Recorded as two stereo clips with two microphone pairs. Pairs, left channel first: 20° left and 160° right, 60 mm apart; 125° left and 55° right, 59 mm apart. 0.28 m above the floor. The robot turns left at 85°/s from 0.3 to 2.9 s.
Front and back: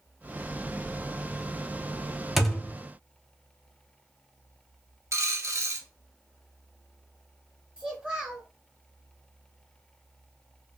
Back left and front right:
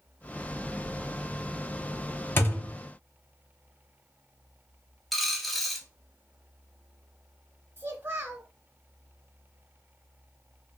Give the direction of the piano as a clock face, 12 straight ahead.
No piano in this recording.